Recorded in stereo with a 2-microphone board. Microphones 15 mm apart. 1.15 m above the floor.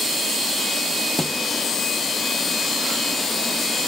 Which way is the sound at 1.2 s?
35° left (ahead or behind).